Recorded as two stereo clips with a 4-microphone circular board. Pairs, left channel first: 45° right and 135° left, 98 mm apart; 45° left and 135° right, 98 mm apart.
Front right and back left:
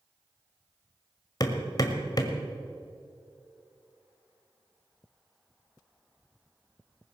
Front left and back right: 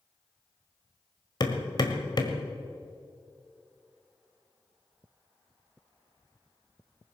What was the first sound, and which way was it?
Hammering, 5° left.